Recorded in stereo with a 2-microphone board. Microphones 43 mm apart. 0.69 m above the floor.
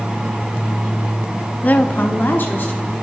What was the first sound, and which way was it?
A woman speaking, 40° left (ahead or behind).